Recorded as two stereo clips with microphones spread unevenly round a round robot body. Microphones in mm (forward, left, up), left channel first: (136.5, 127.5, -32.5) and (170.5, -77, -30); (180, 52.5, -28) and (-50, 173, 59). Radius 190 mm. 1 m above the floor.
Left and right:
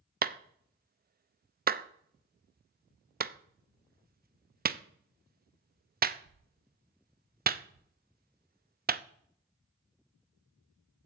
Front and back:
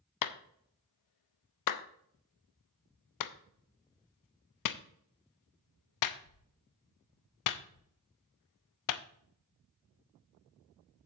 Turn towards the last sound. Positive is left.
turn(degrees=-30)